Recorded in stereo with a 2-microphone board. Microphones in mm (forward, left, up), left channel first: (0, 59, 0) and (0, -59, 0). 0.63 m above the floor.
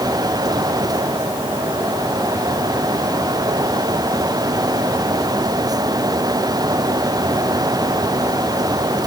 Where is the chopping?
I don't hear chopping.